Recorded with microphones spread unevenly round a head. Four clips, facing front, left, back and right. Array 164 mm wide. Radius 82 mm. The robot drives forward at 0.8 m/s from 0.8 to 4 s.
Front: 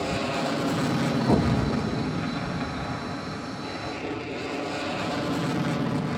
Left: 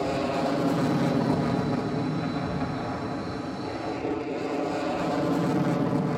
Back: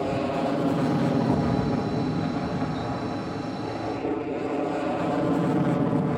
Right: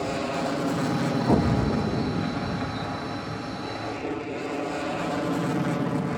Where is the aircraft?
150° left; by 6.2 s 160° left.